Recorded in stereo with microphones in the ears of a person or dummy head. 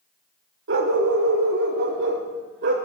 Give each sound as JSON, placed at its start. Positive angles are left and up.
{"t": 0.7, "sound": "a dog barking", "side_deg": -60, "distance_m": 2.0}